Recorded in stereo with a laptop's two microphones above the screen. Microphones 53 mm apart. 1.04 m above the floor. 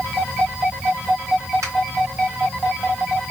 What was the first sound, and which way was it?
A finger snap, 85° right.